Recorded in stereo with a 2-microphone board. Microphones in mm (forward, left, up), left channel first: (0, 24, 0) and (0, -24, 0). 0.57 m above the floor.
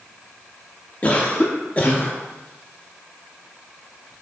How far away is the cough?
About 0.7 m.